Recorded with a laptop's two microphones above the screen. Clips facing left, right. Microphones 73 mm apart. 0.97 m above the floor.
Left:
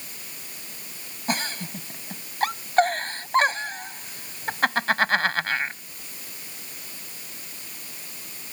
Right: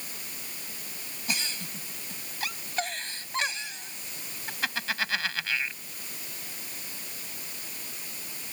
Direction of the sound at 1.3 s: 50° left (ahead or behind).